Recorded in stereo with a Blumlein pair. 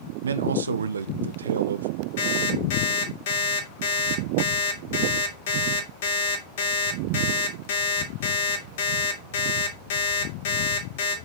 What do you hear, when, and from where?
0.2 s a man speaking: 70° right, 0.7 m
2.2 s an alarm clock: 55° left, 2.5 m